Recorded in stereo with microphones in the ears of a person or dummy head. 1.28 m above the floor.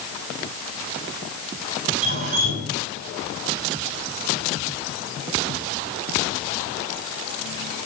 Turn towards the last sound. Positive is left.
turn(degrees=-65)  # may be behind; listen again after turning